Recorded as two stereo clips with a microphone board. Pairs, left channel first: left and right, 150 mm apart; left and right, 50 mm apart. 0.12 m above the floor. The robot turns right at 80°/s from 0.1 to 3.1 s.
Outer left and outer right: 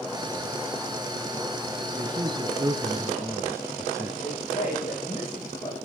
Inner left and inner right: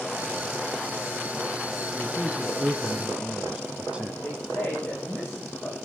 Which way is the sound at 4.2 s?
40° left (ahead or behind).